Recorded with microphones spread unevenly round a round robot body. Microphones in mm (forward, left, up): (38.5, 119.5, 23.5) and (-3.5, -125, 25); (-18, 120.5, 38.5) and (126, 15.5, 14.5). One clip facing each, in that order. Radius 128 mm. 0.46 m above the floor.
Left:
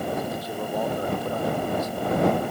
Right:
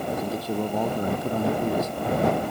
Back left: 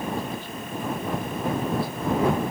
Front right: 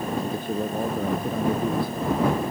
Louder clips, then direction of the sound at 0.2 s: Right 3 dB, front right 5 dB; 95° right.